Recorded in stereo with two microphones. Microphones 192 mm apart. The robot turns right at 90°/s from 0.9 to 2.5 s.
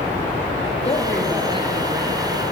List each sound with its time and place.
0.8 s a woman speaking: 150° left, 4.5 m; by 2.2 s 95° right, 4.5 m